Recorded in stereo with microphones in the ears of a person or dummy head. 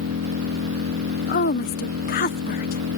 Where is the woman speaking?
45° left (ahead or behind).